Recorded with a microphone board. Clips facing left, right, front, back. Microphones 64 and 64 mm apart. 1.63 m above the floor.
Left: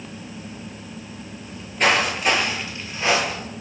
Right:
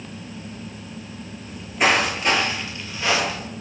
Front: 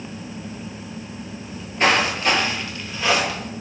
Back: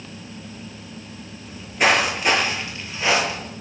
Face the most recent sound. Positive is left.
turn(degrees=120)